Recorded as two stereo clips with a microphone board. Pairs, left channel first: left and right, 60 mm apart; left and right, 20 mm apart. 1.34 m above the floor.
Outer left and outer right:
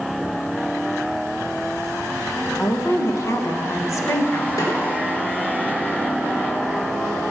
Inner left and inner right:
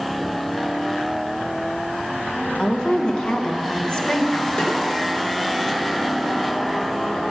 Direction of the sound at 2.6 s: 60° left (ahead or behind).